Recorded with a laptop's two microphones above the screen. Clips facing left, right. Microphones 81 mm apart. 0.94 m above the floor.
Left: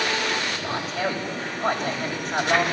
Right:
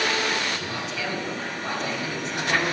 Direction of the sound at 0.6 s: 45° left (ahead or behind).